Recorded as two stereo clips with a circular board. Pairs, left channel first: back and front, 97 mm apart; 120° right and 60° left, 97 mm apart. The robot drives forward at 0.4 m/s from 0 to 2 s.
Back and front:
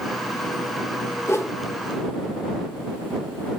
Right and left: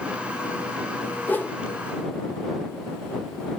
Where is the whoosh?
165° right, 1.4 m; by 1.6 s 170° right, 1.5 m.